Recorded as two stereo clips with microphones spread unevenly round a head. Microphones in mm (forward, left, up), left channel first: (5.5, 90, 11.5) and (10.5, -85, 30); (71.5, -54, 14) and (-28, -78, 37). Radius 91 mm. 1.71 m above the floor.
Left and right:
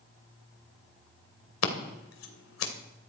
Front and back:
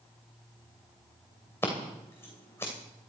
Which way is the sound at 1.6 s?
100° left.